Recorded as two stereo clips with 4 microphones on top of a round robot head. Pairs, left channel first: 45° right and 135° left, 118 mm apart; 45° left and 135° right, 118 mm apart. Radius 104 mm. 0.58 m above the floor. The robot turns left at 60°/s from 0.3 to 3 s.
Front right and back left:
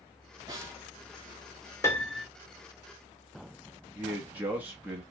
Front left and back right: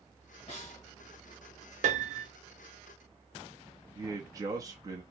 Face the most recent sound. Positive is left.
turn(degrees=-160)